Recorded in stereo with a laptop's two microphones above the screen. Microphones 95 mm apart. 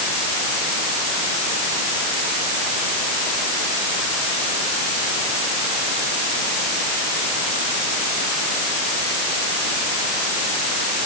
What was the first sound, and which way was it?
Only background noise.